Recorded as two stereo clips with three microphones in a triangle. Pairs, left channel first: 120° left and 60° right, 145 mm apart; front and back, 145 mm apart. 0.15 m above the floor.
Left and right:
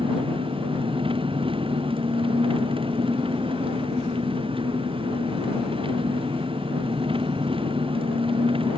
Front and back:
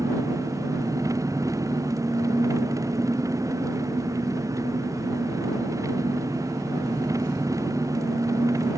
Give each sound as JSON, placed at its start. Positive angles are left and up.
{"t": 0.0, "sound": "an engine running", "azimuth_deg": -110}